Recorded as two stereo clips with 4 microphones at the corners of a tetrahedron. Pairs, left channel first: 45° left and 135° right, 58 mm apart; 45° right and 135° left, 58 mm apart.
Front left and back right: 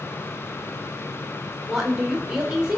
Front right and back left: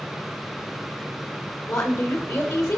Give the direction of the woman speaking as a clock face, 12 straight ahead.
2 o'clock.